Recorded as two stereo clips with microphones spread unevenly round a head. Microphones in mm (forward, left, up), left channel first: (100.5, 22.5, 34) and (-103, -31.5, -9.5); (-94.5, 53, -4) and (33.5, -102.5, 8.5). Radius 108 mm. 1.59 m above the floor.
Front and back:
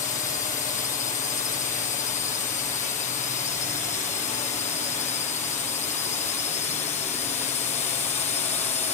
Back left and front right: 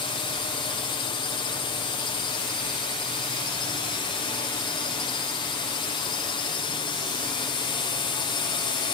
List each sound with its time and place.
0.0 s a drone: 70° left; by 8.9 s 75° left